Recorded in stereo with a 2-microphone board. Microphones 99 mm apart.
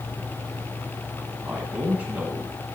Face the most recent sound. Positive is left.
turn(degrees=-15)  # may be behind; listen again after turning